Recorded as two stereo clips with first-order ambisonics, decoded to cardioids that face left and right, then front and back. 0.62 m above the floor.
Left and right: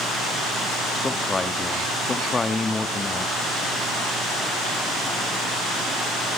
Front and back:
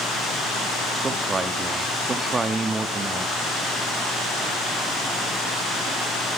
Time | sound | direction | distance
1.0 | a man speaking | 140° left | 0.6 m